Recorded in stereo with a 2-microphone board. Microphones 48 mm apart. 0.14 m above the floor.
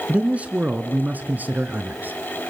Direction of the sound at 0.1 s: 25° right (ahead or behind).